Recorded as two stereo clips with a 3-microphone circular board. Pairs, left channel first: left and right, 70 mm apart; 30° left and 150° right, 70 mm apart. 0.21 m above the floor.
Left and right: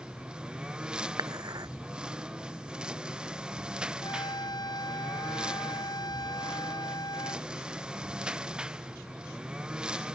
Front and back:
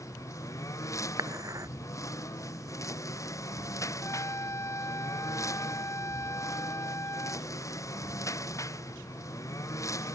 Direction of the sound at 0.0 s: 15° right.